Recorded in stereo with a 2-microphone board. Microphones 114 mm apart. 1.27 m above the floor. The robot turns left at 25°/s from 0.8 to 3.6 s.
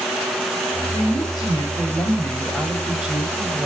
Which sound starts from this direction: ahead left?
A woman speaking, at 0.9 s.